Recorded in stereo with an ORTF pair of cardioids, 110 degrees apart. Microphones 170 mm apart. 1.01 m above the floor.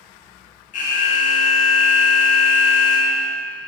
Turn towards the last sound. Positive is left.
turn(degrees=50)